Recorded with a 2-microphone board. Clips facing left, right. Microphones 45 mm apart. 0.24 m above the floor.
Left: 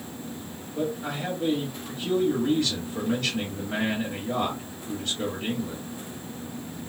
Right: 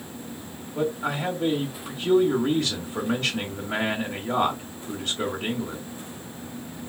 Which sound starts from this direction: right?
A man speaking, at 0.8 s.